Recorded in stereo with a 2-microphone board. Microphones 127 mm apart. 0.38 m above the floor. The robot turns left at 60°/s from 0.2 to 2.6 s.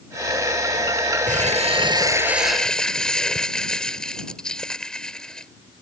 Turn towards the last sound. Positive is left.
turn(degrees=175)